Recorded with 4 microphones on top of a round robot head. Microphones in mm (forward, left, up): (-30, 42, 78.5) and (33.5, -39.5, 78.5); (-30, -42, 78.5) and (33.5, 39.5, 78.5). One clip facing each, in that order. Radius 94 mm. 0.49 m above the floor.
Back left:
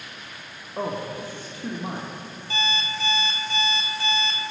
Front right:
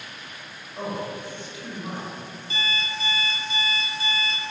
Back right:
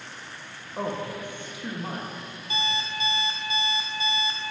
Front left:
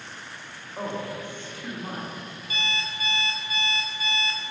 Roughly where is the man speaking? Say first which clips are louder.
Back left 2 dB, back right 1 dB; behind.